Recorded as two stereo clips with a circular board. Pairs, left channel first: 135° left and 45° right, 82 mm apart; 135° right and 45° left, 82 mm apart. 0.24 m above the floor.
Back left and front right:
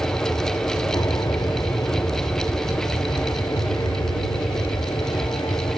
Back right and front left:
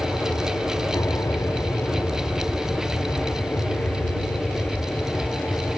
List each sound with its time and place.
0.0 s an aircraft: 175° left; by 5.8 s 150° left